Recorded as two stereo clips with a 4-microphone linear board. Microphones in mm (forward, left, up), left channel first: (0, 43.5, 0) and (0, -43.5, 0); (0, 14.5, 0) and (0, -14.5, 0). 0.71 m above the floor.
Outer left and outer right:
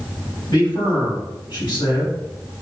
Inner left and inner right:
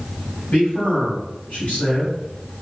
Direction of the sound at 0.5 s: 70° left (ahead or behind).